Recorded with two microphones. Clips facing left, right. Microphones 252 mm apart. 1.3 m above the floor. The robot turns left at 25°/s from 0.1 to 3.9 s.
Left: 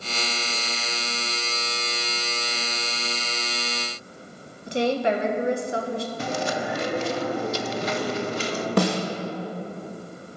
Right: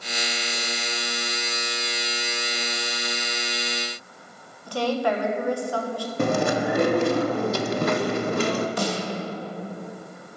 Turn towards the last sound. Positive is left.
turn(degrees=75)  # may be behind; listen again after turning